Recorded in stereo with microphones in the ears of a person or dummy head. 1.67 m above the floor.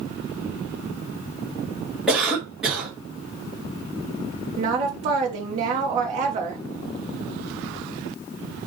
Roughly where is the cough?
Centre.